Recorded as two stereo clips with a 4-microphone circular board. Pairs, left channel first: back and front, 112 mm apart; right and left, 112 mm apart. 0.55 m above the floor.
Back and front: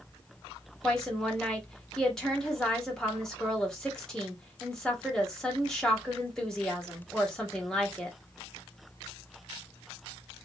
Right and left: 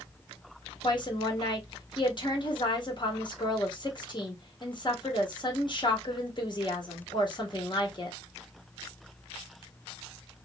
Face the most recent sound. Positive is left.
turn(degrees=-95)